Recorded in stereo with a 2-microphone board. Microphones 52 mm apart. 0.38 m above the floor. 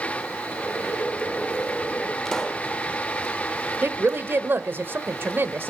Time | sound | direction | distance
0.6 | boiling | 25° left (ahead or behind) | 7 m
2.2 | a pop | 10° left (ahead or behind) | 1.2 m
3.8 | a woman speaking | 40° right (ahead or behind) | 1.1 m